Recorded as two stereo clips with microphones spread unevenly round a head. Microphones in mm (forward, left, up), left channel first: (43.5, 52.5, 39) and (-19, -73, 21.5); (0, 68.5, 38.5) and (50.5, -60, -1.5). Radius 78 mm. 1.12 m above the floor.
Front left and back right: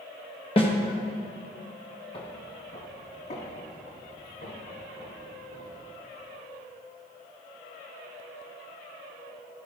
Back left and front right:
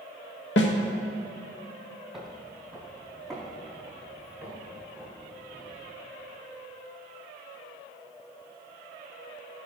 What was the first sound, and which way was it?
A snare drum, 120° left.